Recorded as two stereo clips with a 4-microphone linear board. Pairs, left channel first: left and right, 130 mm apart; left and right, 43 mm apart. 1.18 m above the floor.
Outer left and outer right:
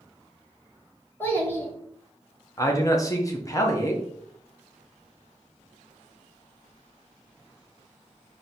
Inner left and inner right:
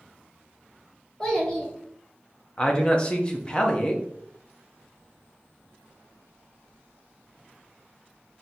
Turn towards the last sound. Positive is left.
turn(degrees=25)  # may be behind; listen again after turning